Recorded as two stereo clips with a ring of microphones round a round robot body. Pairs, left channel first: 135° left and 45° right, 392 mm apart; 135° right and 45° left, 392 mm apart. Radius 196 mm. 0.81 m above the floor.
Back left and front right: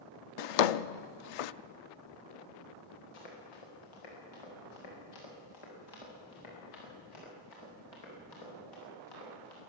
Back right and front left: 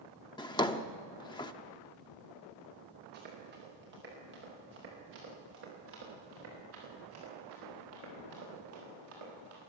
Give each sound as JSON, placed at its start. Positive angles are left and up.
{"t": 0.4, "sound": "a drawer", "azimuth_deg": 145, "distance_m": 0.6}
{"t": 3.1, "sound": "running footsteps", "azimuth_deg": 110, "distance_m": 8.5}